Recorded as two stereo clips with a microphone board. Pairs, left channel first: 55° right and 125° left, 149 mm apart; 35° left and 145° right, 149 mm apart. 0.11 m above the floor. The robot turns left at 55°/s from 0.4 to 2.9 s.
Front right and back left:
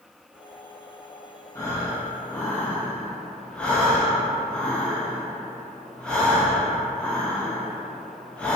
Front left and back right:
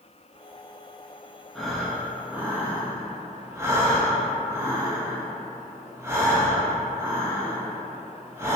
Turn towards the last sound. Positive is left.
turn(degrees=-120)